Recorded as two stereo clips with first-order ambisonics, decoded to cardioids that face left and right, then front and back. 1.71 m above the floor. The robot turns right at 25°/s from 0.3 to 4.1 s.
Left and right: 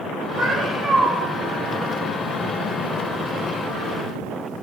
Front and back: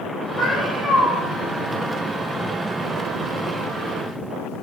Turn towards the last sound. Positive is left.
turn(degrees=50)